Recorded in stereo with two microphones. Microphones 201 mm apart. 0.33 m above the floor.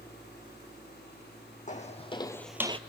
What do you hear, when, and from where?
1.7 s footsteps: 40° left (ahead or behind), 1.2 m; by 2.8 s 35° right (ahead or behind), 0.5 m